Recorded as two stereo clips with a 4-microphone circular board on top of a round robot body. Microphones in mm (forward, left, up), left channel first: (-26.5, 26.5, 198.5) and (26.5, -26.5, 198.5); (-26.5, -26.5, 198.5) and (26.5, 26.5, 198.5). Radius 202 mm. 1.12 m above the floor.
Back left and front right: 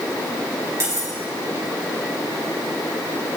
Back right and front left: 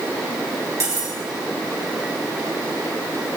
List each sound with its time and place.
0.8 s cutlery clinking: 5° left, 3 m